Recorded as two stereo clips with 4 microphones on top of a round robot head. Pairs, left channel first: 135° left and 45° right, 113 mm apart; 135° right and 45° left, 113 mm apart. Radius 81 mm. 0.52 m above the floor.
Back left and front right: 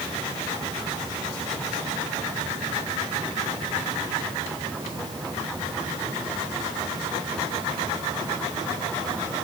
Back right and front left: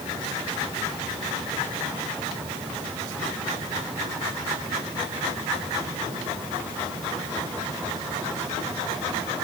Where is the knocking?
No knocking in this recording.